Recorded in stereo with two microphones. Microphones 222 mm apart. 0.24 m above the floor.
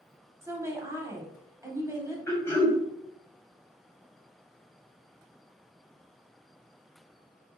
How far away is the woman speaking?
About 1.1 m.